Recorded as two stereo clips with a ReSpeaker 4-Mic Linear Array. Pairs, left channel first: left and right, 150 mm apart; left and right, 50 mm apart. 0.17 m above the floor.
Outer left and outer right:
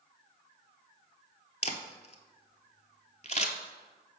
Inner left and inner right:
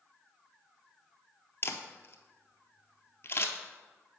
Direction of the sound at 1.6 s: 45° left (ahead or behind).